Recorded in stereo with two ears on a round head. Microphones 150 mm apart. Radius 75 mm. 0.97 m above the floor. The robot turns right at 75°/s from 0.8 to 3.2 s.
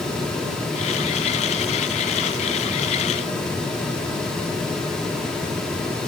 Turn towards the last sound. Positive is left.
No sound to turn to.